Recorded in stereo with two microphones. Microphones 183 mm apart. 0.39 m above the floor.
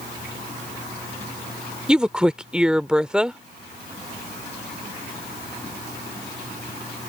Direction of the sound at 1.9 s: 5° right (ahead or behind).